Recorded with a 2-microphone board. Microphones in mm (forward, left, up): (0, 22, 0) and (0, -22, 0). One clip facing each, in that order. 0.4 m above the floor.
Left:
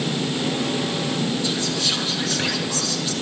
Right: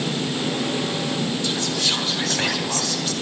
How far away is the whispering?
About 3.5 m.